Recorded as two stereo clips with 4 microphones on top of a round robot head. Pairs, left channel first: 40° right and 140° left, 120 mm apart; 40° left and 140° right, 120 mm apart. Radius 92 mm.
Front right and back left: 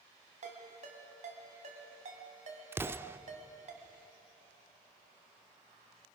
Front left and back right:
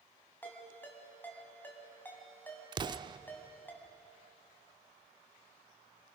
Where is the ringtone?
115° left, 2.5 m.